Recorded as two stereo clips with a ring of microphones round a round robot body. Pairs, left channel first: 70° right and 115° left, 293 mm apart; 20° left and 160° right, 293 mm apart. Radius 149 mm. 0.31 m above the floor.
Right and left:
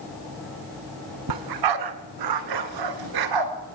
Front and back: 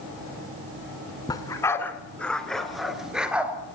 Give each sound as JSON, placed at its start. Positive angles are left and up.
{"t": 1.3, "sound": "a dog barking", "azimuth_deg": 100, "distance_m": 1.6}